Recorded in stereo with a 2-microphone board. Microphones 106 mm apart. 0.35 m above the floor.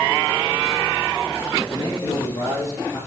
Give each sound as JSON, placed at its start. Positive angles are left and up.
{"t": 1.7, "sound": "a man speaking", "side_deg": 40, "distance_m": 7.0}